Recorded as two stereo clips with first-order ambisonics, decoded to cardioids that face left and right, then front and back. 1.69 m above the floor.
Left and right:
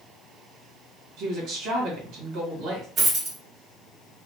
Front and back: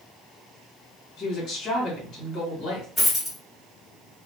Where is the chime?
No chime in this recording.